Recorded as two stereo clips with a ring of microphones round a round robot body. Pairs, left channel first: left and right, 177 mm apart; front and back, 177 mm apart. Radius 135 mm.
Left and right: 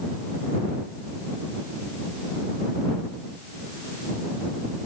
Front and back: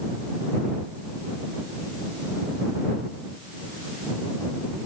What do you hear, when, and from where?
Only background noise.